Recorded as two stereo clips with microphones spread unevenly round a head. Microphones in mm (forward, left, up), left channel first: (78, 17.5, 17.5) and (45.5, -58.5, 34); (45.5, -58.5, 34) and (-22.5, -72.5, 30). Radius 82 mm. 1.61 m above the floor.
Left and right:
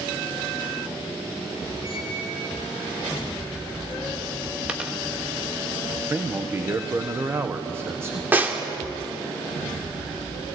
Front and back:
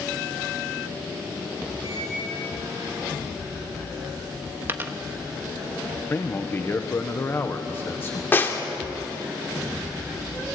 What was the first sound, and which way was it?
A squeak, 120° left.